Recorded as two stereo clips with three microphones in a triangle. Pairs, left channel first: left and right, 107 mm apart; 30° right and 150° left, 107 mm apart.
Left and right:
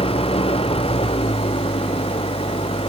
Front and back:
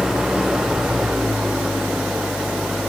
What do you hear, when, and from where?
0.0 s an engine running: 65° left